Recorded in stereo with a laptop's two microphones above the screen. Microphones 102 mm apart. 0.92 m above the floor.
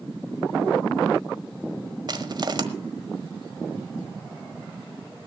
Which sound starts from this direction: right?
Crushing, at 2.1 s.